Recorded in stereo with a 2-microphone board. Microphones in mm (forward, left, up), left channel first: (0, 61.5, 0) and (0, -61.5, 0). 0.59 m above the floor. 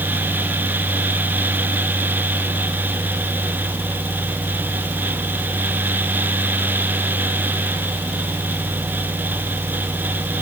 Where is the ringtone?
No ringtone in this recording.